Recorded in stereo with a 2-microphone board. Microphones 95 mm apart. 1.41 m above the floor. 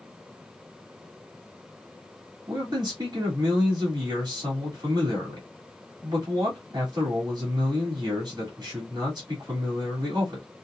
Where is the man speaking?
50° right (ahead or behind), 3 m.